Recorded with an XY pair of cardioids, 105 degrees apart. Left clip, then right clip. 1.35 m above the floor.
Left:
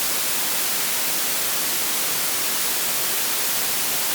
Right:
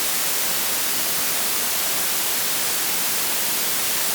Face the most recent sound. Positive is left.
No sound to turn to.